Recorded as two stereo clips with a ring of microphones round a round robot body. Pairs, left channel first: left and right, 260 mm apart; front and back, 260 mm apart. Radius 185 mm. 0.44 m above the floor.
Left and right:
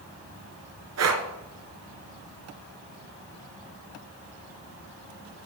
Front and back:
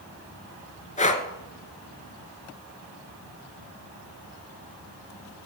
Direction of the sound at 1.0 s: 65° right.